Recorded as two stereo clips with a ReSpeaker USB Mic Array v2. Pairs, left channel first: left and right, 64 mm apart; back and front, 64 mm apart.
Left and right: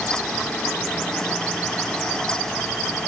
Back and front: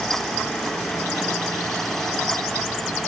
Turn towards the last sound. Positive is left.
No sound to turn to.